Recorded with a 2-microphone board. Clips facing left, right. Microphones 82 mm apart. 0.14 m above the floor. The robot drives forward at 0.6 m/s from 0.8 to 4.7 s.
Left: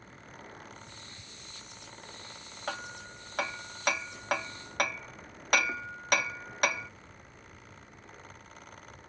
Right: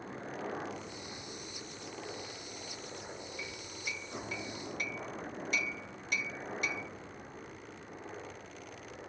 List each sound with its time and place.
0.0 s a helicopter: 45° right (ahead or behind); by 9.1 s 35° right (ahead or behind)
2.7 s hammering: 75° left (ahead or behind); by 6.9 s 70° left (ahead or behind)